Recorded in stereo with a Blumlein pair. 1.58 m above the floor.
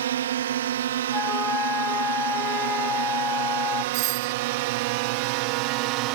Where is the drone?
60° right; by 6.1 s 40° right.